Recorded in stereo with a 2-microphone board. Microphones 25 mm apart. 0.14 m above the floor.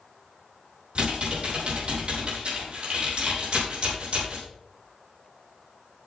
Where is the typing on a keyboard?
50° right (ahead or behind), 5.5 m.